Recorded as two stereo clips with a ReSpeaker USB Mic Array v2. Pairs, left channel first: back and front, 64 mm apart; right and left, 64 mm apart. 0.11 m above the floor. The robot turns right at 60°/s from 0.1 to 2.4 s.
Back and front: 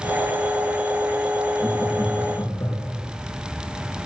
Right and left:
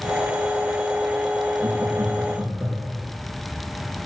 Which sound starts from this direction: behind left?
Laughter, at 1.6 s.